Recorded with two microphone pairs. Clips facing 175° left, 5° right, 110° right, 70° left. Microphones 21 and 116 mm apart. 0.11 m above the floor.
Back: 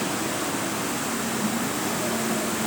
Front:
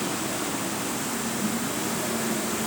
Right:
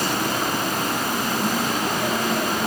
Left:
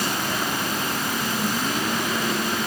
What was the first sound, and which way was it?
Only background noise.